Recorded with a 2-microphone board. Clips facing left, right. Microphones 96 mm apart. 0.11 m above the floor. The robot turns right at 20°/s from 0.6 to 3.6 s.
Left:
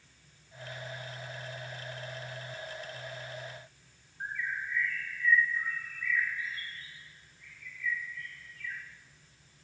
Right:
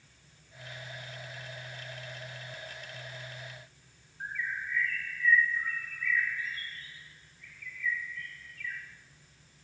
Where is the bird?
10° left (ahead or behind), 1.0 m.